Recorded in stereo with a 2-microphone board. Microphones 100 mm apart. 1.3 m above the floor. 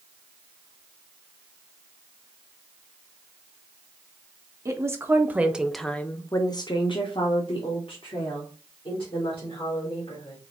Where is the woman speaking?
30° right (ahead or behind), 1.0 m; by 10.4 s 60° left (ahead or behind), 2.5 m.